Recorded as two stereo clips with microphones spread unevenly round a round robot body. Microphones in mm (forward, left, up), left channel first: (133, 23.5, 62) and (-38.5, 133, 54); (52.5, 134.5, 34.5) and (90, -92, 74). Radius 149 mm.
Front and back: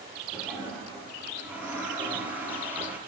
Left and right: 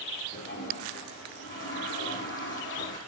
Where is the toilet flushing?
65° left, 7.5 m.